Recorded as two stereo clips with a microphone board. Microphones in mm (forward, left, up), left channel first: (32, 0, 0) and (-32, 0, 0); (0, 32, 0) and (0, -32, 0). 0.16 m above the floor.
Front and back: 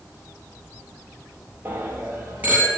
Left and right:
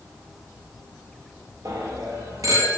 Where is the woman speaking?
I don't hear a woman speaking.